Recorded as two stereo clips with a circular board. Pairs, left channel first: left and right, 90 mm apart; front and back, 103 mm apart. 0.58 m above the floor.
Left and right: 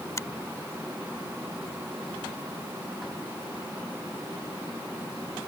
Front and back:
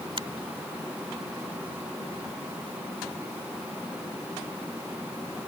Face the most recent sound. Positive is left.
turn(degrees=140)